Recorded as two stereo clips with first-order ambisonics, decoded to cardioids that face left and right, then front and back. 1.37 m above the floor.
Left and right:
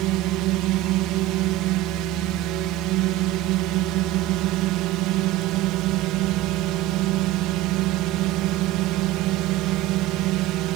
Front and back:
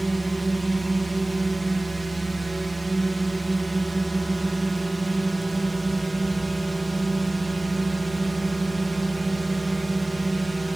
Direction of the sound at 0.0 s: 95° right.